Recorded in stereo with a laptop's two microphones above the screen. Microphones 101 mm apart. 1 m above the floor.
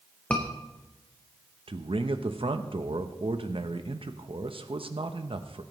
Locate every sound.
0.3 s a scream: 15° left (ahead or behind), 0.7 m
1.7 s a man speaking: 65° right (ahead or behind), 0.8 m